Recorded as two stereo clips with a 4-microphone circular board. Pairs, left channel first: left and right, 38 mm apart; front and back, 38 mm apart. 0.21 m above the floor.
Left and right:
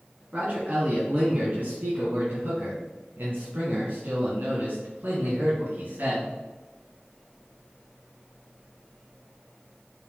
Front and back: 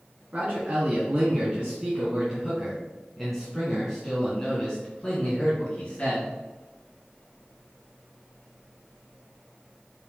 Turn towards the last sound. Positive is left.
turn(degrees=-55)